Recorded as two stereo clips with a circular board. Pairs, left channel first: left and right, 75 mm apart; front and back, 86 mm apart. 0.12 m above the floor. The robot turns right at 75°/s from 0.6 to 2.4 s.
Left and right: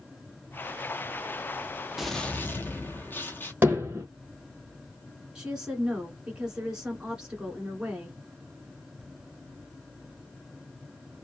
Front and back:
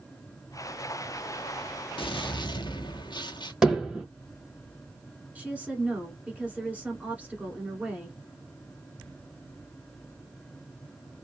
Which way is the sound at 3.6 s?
105° right.